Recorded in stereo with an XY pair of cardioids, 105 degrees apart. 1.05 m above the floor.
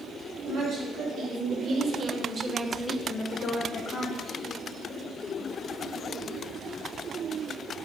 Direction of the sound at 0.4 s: 70° right.